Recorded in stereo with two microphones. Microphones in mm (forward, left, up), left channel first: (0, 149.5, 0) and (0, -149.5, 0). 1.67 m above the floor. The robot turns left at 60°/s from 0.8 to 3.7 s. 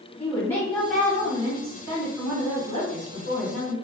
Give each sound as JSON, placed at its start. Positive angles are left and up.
{"t": 0.2, "sound": "a woman speaking", "azimuth_deg": 5, "distance_m": 1.7}